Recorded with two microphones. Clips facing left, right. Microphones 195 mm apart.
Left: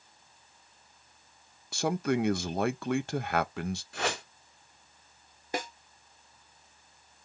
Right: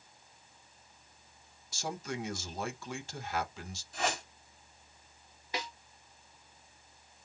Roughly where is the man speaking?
Left.